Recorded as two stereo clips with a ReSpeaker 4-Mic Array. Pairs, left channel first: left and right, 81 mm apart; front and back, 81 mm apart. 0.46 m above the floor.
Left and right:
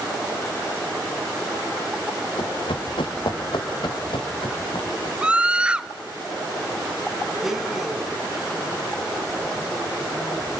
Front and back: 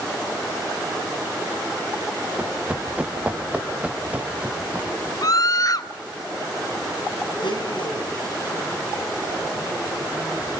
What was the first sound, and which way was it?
Running footsteps, 100° left.